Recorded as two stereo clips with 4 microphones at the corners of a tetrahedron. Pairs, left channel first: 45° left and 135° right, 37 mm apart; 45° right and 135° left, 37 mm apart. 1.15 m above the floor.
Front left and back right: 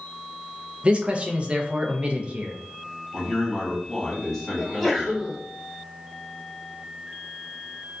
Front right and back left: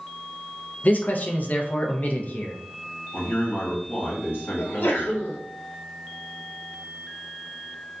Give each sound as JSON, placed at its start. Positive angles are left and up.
{"t": 0.8, "sound": "a man speaking", "azimuth_deg": -80, "distance_m": 0.5}
{"t": 3.1, "sound": "a man speaking", "azimuth_deg": -40, "distance_m": 1.4}
{"t": 4.6, "sound": "a sneeze", "azimuth_deg": -45, "distance_m": 0.9}